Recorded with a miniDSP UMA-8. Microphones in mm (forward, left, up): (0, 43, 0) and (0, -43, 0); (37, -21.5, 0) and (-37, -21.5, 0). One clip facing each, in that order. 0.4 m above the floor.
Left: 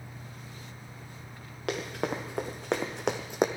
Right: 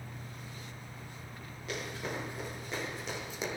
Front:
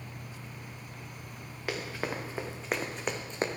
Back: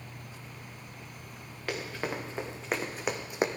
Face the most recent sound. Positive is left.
turn(degrees=105)